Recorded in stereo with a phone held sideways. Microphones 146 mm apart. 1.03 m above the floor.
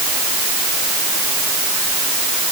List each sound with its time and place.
Only background noise.